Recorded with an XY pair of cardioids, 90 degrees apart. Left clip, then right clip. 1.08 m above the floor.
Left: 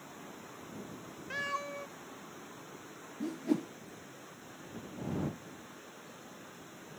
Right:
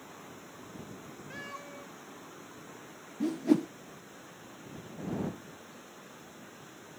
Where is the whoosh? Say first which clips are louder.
Right 6 dB; 40° right.